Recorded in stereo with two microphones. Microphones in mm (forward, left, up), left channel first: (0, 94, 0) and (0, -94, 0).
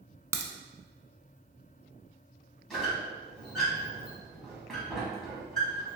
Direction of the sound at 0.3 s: 15° right (ahead or behind).